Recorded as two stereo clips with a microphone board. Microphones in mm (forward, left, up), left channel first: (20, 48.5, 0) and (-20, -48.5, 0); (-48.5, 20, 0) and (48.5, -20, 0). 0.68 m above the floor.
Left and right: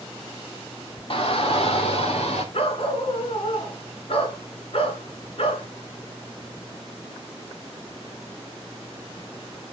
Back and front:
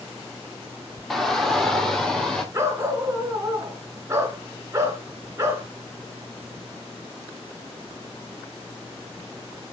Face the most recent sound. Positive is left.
turn(degrees=40)